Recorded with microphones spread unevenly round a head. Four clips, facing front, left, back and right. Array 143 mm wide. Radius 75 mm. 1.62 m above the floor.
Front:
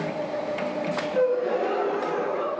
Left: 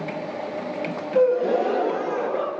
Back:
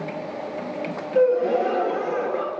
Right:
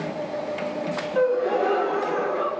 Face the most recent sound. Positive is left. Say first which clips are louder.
# left 3 dB, back 5 dB
turn(degrees=110)